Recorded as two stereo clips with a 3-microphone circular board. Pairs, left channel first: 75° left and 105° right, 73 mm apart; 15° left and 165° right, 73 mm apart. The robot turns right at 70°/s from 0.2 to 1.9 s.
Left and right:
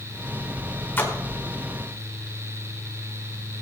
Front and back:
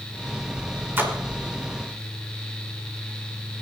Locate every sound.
1.0 s a splash: 135° left, 1.9 m; by 1.2 s 150° left, 1.9 m